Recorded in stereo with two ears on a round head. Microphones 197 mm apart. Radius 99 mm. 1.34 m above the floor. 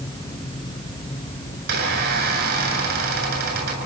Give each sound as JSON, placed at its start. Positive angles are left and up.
{"t": 1.6, "sound": "a squeak", "side_deg": -50, "distance_m": 8.0}